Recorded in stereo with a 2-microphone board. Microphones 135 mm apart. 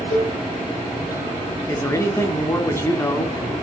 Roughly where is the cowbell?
Left.